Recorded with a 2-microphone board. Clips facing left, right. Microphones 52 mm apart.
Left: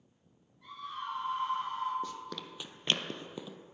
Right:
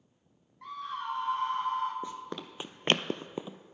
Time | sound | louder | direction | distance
0.6 | a scream | right 4 dB | 65° right (ahead or behind) | 3.5 m
2.0 | running footsteps | right 2 dB | 20° right (ahead or behind) | 1.0 m